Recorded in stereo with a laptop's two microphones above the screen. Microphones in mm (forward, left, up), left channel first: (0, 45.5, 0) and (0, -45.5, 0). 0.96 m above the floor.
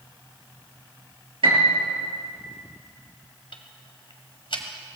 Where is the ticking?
70° left (ahead or behind), 1.6 m.